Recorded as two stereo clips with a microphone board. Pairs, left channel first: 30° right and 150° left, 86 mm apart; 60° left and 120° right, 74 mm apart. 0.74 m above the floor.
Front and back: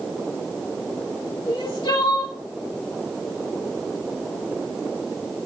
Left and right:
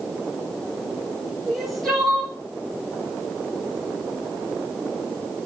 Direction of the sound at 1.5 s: 30° right.